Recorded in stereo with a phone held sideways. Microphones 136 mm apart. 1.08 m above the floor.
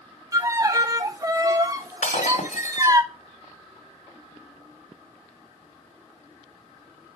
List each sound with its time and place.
0.3 s a violin: 25° right (ahead or behind), 0.8 m
2.0 s breaking glass: 70° left (ahead or behind), 2 m